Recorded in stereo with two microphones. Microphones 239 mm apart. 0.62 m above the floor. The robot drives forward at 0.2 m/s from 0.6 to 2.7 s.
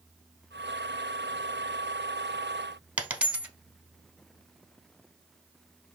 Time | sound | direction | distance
3.0 | a dropped coin | 5° right (ahead or behind) | 0.6 m